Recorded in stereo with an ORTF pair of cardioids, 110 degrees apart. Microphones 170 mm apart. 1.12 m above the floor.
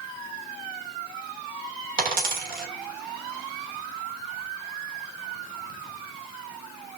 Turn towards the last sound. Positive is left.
turn(degrees=-60)